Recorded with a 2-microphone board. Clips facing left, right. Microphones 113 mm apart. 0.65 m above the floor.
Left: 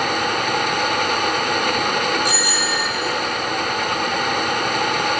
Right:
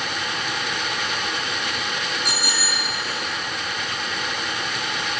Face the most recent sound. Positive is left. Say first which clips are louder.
# left 5 dB
turn(degrees=-55)  # may be behind; listen again after turning